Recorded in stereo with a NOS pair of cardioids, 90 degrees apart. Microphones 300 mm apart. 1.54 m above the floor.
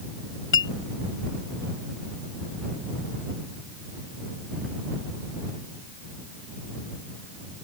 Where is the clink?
40° left.